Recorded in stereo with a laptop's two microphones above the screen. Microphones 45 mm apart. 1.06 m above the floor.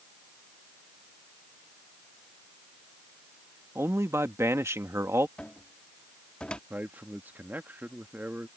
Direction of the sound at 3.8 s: 75° right (ahead or behind).